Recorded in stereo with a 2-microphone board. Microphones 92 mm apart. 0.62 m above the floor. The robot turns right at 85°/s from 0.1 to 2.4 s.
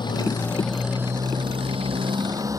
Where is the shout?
No shout in this recording.